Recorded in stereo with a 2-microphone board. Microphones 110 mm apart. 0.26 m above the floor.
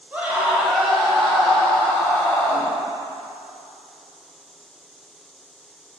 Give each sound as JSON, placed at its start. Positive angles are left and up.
{"t": 0.1, "sound": "a scream", "side_deg": -15, "distance_m": 1.4}